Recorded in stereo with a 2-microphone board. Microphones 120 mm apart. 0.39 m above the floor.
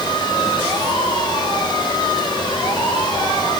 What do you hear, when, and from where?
Only background noise.